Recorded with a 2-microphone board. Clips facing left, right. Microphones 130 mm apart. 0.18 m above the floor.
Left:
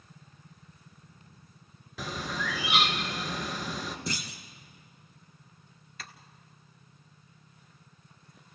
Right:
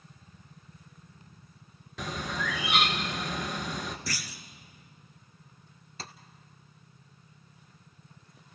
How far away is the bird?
About 1.5 m.